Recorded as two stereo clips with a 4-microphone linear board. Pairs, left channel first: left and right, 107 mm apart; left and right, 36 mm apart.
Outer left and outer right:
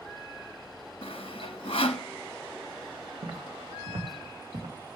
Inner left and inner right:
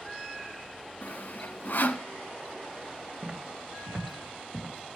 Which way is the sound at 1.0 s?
60° left (ahead or behind).